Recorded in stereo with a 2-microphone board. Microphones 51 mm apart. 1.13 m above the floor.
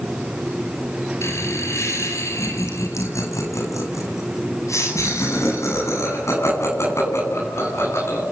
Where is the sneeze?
No sneeze in this recording.